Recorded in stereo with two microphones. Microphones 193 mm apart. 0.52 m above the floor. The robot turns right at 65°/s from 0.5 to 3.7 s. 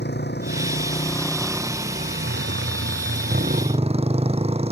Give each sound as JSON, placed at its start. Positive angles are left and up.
{"t": 0.0, "sound": "a motorcycle", "azimuth_deg": 120}